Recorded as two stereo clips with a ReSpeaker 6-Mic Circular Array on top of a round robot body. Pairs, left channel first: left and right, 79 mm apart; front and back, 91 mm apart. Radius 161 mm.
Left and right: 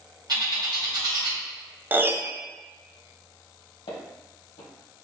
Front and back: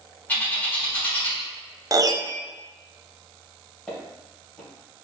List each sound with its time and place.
0.3 s a bird: 70° right, 1.8 m
1.9 s a piano: 145° right, 0.6 m
3.9 s footsteps: 90° left, 1.6 m